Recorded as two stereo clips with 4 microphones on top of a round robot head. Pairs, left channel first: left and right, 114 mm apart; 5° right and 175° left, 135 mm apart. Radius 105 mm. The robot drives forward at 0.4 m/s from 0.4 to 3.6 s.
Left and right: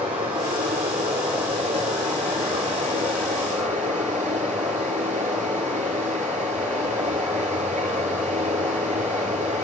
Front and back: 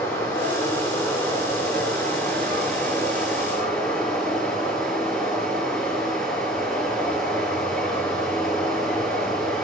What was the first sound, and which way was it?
Running water, 80° right.